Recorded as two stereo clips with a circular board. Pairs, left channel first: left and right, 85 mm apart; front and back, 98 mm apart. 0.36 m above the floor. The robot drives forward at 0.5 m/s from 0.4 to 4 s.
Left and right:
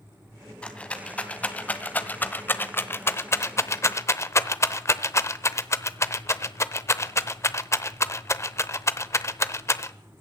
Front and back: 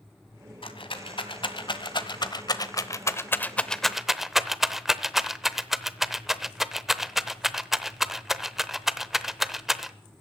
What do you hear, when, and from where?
0.6 s a rattle: 15° left, 1.8 m; by 9.9 s 95° left, 0.7 m